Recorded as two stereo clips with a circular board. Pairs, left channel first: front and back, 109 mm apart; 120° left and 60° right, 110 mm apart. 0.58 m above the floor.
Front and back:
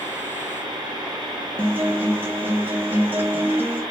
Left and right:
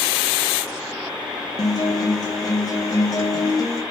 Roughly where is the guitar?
Behind left.